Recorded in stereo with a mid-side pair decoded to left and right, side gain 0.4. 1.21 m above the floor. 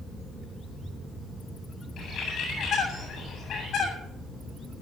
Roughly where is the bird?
Left.